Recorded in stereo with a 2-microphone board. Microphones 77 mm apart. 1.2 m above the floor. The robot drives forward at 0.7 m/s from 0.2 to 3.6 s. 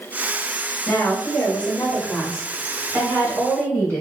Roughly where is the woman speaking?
Left.